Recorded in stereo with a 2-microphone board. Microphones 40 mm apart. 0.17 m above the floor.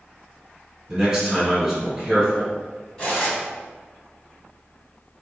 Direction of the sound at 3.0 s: 25° left (ahead or behind).